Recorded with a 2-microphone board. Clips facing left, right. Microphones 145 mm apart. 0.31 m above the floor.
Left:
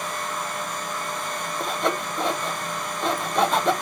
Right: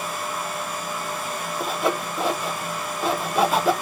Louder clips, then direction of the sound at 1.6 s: Right 1 dB; 5° right (ahead or behind).